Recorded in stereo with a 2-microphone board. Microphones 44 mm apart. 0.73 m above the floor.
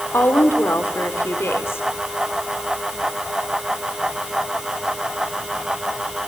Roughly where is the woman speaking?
Left.